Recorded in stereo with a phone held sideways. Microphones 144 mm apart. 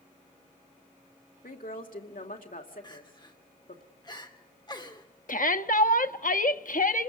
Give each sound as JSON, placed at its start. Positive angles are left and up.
{"t": 1.4, "sound": "a woman speaking", "side_deg": 75, "distance_m": 2.5}
{"t": 2.8, "sound": "crying", "side_deg": 30, "distance_m": 2.5}
{"t": 5.3, "sound": "a shout", "side_deg": 70, "distance_m": 1.0}